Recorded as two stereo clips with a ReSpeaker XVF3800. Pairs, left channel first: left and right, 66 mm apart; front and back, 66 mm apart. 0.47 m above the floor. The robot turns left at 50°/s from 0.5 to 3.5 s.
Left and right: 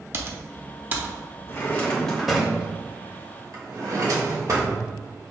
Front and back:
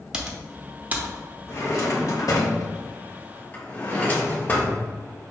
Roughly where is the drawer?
Ahead left.